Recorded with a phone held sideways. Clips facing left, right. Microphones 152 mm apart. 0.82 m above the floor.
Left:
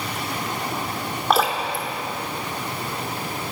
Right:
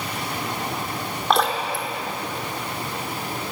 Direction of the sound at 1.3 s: 5° left (ahead or behind).